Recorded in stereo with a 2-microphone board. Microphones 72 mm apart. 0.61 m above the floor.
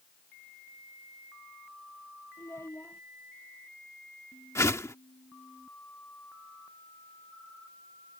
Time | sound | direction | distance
2.4 | a child speaking | 35° left (ahead or behind) | ?
4.5 | a whoosh | 45° left (ahead or behind) | ?